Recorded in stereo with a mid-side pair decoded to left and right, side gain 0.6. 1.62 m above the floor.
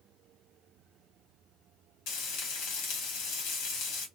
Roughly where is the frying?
Left.